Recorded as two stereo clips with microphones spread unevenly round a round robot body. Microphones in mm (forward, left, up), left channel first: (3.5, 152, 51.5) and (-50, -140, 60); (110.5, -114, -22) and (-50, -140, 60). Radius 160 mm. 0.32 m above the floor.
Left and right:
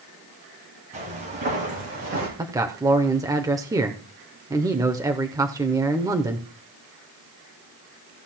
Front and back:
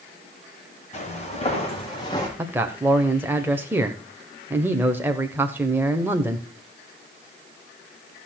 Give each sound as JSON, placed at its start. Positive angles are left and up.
{"t": 0.9, "sound": "footsteps", "azimuth_deg": -40, "distance_m": 5.0}
{"t": 2.4, "sound": "a man speaking", "azimuth_deg": -40, "distance_m": 0.9}